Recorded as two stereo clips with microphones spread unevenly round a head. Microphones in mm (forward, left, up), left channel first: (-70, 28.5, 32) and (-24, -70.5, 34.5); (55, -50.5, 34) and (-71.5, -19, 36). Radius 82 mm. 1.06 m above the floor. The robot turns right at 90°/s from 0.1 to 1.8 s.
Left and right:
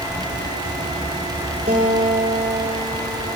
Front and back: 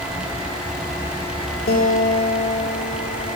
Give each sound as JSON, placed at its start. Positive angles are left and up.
{"t": 1.7, "sound": "a guitar", "azimuth_deg": -15, "distance_m": 6.5}